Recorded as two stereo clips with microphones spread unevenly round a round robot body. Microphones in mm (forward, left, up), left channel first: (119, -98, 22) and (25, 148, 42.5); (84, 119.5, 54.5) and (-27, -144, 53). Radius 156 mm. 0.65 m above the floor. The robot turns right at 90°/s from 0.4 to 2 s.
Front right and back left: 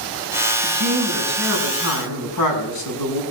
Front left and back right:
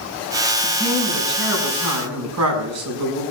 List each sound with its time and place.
0.6 s a man speaking: 155° left, 6 m; by 3.2 s 80° right, 6 m